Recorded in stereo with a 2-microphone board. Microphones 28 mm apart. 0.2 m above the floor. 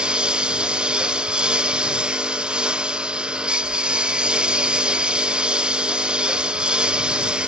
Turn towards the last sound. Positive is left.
turn(degrees=-35)  # may be behind; listen again after turning